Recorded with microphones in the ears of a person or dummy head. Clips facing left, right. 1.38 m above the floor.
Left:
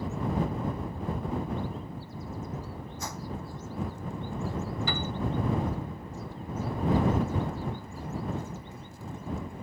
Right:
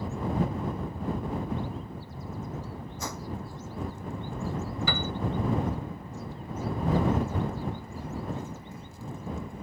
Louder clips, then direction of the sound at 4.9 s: Right 1 dB; 60° right (ahead or behind).